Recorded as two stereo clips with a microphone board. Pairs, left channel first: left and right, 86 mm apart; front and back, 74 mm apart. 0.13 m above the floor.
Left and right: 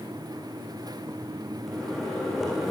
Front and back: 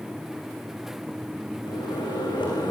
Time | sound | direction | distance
1.6 | a microwave | straight ahead | 8 m